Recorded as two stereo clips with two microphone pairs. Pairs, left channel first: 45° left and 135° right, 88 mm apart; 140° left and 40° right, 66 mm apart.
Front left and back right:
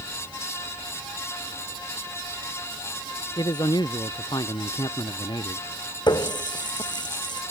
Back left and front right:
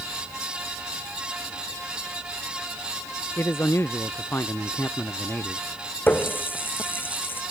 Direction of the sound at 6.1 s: 80° left.